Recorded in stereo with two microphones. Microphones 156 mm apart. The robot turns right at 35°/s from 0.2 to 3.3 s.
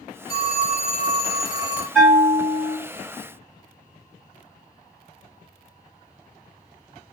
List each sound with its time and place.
0.3 s a phone ringing: 110° left, 2 m; by 1.9 s 165° left, 2 m
1.9 s a bell: centre (ahead or behind), 2 m; by 2.8 s 25° right (ahead or behind), 2 m